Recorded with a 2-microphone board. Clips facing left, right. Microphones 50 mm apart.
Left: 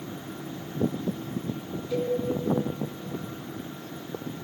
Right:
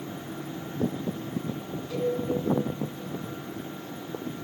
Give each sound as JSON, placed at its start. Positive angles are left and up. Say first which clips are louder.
{"t": 1.9, "sound": "a cowbell", "louder": "left 1 dB", "side_deg": -85, "distance_m": 7.0}